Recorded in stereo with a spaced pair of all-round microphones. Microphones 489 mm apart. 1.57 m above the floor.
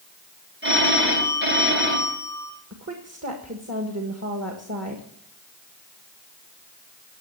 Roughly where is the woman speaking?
Right.